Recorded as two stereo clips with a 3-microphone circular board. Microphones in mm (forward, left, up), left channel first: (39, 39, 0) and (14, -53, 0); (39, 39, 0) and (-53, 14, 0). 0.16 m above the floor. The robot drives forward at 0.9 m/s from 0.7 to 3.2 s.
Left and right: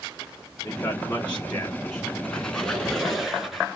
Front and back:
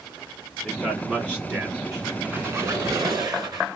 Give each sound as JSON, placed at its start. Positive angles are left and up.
{"t": 0.6, "sound": "a man speaking", "azimuth_deg": 90, "distance_m": 1.6}
{"t": 2.2, "sound": "a squeak", "azimuth_deg": 140, "distance_m": 1.1}